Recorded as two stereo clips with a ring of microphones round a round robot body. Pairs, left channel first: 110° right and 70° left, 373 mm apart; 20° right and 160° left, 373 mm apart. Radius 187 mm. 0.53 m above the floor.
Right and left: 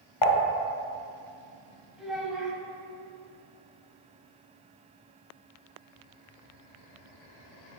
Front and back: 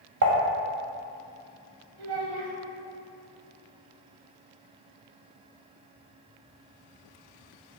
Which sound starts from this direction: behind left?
A child speaking, at 2.0 s.